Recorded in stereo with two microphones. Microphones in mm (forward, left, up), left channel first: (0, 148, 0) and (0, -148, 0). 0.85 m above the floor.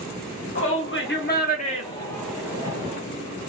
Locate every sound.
0.6 s a shout: 45° left (ahead or behind), 1.5 m; by 3.0 s 25° right (ahead or behind), 0.9 m